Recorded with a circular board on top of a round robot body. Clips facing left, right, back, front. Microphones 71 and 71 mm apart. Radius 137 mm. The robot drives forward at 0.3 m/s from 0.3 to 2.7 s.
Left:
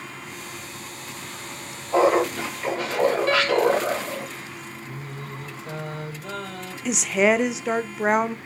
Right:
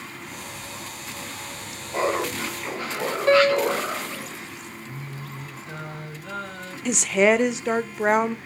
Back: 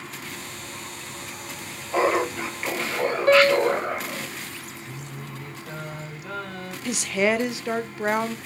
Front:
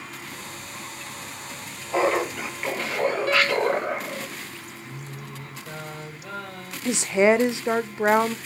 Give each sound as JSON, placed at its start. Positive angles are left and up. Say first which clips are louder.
{"t": 1.9, "sound": "laughter", "louder": "left 6 dB, back 1 dB", "azimuth_deg": 80, "distance_m": 4.0}
{"t": 3.3, "sound": "a piano", "louder": "right 2 dB, back 8 dB", "azimuth_deg": -150, "distance_m": 0.9}
{"t": 4.8, "sound": "singing", "louder": "left 1 dB, back 1 dB", "azimuth_deg": 80, "distance_m": 4.0}
{"t": 6.8, "sound": "a woman speaking", "louder": "right 1 dB, front 4 dB", "azimuth_deg": 5, "distance_m": 0.6}